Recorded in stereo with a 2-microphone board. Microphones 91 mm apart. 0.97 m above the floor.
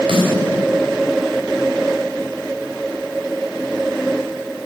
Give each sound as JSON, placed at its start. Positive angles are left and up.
{"t": 0.1, "sound": "a snare drum", "side_deg": -70, "distance_m": 3.0}